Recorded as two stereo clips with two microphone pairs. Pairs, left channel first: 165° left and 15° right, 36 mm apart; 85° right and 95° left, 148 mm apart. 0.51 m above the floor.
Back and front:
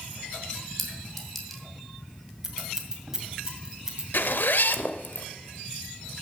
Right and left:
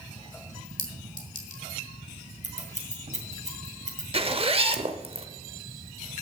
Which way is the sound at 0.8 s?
110° right.